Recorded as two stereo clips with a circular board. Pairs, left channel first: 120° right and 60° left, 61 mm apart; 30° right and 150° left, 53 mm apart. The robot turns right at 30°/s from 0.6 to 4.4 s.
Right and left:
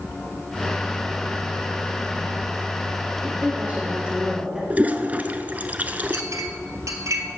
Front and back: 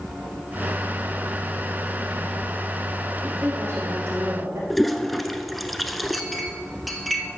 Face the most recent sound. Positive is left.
turn(degrees=60)